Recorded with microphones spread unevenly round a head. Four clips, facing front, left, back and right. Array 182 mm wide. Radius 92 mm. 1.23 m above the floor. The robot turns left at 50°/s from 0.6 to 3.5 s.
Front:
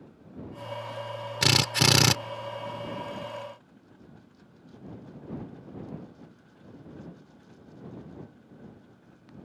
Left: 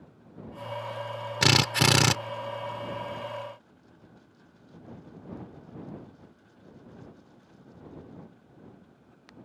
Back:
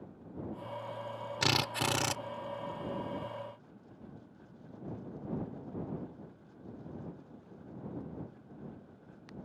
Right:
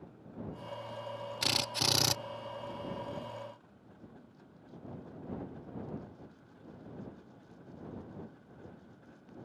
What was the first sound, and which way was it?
A drill, 70° left.